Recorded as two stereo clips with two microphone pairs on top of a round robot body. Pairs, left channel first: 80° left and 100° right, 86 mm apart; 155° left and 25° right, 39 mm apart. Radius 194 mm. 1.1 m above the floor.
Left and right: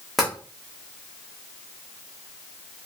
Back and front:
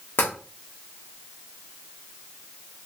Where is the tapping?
175° left, 1.0 m.